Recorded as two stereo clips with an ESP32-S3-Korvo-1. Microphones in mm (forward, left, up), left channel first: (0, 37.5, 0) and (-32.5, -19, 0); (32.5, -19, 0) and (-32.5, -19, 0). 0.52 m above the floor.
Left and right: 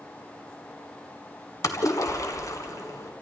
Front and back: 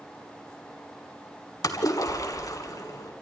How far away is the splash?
About 1.8 m.